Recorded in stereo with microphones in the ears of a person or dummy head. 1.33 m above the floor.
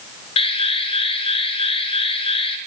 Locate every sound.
0.4 s an alarm: 35° left (ahead or behind), 7 m